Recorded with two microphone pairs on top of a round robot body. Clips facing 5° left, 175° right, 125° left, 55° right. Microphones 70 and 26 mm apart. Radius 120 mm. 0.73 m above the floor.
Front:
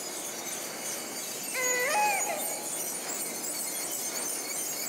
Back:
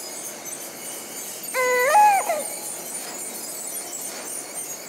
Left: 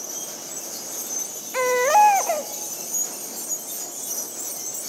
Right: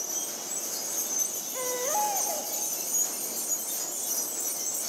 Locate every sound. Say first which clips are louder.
1.5 s a baby crying: back 12 dB, left 13 dB; 145° left, 0.6 m